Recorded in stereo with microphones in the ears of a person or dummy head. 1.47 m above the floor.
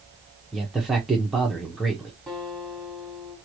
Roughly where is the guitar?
Centre.